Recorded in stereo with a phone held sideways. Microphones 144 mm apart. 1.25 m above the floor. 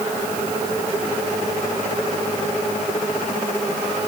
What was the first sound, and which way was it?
Only background noise.